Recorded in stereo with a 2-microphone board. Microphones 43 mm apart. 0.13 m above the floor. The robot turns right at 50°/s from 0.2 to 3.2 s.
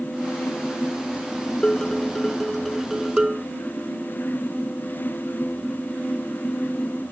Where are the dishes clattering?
135° left; by 3.5 s 145° right.